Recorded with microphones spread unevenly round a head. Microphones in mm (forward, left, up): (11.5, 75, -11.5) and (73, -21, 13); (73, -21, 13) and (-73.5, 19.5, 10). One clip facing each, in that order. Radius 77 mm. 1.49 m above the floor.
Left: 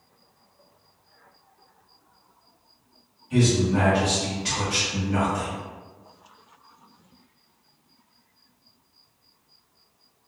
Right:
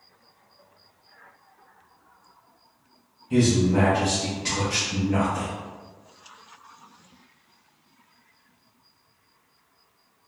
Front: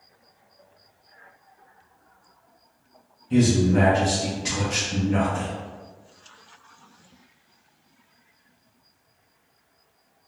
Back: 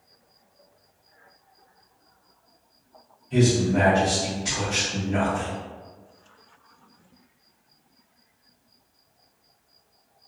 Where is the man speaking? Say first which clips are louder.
Right 1 dB, front 2 dB; 10° right, 1.1 m.